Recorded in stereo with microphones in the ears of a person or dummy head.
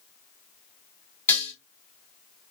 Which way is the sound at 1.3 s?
10° left (ahead or behind).